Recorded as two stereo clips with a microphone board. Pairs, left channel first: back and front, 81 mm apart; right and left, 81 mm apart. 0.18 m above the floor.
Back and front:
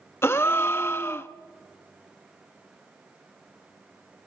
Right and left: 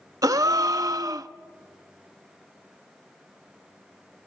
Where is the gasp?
125° left, 0.7 m.